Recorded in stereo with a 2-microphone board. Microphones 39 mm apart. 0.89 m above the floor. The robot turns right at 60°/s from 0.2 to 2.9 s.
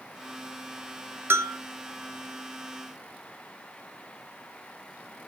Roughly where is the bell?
Right.